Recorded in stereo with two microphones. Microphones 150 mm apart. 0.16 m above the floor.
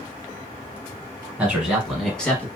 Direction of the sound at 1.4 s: 10° right (ahead or behind).